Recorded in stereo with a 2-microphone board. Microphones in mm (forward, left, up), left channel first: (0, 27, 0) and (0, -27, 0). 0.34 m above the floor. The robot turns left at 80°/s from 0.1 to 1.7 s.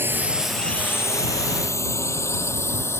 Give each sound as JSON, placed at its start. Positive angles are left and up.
{"t": 0.0, "sound": "a drone", "side_deg": -45}